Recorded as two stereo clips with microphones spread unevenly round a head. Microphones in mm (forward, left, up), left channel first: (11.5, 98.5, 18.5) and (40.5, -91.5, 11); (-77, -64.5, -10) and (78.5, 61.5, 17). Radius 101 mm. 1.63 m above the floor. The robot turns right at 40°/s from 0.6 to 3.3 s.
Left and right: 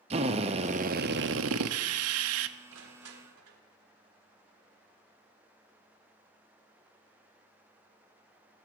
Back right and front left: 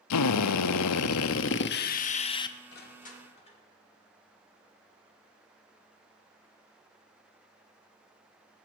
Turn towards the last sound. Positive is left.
turn(degrees=-80)